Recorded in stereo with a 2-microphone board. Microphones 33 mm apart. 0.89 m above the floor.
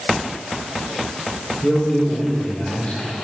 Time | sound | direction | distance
1.6 | a man speaking | 35° left (ahead or behind) | 2.5 m